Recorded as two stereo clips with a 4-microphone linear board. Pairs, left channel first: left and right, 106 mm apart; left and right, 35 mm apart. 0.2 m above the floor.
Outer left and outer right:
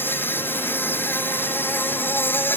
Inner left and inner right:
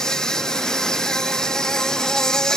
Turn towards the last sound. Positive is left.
turn(degrees=20)  # may be behind; listen again after turning